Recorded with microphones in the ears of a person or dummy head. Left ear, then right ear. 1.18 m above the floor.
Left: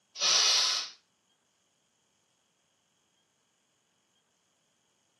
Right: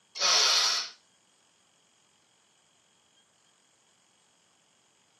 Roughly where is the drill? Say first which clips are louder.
Right 1 dB; right.